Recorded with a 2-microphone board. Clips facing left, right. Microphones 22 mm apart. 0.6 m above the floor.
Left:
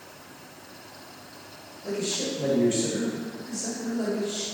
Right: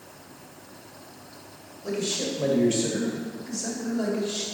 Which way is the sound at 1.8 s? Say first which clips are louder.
Right 1 dB; 60° right (ahead or behind).